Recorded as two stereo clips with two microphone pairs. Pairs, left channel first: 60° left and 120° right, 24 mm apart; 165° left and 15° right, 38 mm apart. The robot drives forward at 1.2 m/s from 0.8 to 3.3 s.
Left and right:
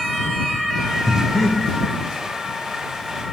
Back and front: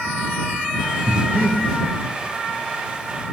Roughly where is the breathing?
Ahead.